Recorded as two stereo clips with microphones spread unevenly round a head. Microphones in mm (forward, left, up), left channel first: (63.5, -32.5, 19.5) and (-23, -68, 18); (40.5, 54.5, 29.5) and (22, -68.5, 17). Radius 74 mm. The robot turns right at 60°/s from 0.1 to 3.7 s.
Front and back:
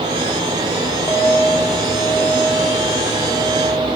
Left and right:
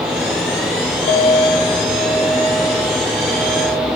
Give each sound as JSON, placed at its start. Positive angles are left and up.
{"t": 1.1, "sound": "a clink", "azimuth_deg": 95, "distance_m": 1.6}